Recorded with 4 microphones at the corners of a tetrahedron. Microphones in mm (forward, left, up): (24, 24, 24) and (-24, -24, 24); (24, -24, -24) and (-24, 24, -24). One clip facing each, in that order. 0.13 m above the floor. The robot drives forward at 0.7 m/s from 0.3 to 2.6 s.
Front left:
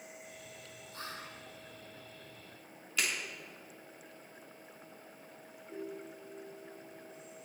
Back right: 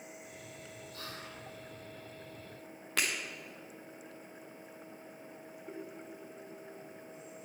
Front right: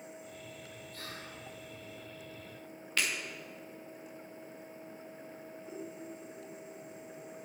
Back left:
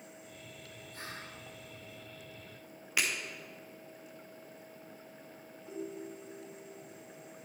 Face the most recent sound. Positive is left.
turn(degrees=-125)